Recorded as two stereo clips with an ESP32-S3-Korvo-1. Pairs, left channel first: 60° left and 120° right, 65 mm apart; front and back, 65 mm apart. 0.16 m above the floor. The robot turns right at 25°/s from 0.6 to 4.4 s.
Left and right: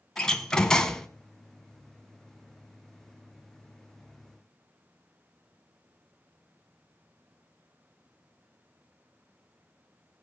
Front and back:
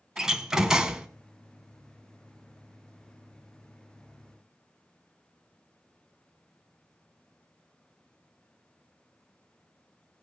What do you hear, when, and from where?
0.2 s a door slam: 115° left, 1.1 m; by 1.1 s 125° left, 1.1 m